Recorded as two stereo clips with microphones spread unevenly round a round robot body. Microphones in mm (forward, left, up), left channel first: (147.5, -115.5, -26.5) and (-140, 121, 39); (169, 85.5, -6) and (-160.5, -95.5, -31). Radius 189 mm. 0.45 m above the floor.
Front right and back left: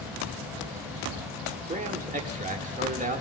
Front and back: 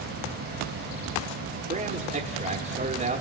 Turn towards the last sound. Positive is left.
turn(degrees=-155)